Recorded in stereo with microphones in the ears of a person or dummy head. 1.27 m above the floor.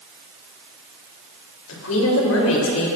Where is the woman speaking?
80° left, 3 m.